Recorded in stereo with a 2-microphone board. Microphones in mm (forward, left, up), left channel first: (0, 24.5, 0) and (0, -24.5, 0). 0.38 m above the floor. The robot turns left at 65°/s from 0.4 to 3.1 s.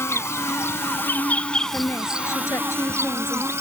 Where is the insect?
95° left; by 3.6 s 80° right.